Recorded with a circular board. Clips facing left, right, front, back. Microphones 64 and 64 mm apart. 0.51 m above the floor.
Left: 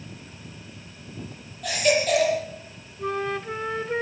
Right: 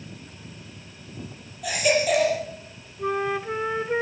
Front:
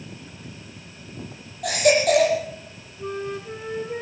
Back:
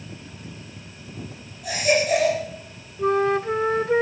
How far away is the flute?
About 0.8 m.